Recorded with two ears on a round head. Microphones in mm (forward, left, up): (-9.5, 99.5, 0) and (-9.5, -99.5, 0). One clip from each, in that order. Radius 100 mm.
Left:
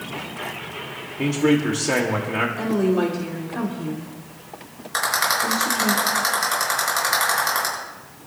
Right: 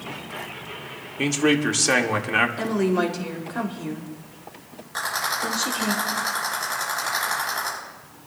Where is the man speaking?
60° right (ahead or behind), 1.6 m.